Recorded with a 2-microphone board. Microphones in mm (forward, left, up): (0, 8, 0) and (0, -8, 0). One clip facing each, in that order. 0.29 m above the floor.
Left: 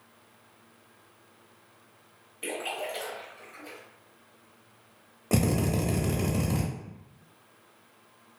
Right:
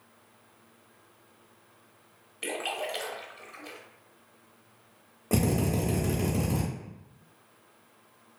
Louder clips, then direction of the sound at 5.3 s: Even; 20° left (ahead or behind).